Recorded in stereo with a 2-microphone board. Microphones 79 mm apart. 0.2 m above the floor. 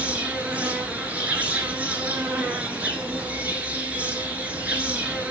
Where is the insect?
20° right (ahead or behind), 1.2 m.